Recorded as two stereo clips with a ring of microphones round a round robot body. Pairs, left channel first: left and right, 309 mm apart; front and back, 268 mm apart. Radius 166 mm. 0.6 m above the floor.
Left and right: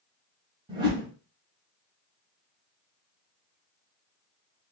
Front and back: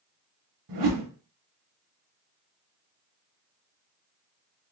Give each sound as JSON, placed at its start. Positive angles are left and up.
{"t": 0.7, "sound": "a whoosh", "azimuth_deg": -165, "distance_m": 0.7}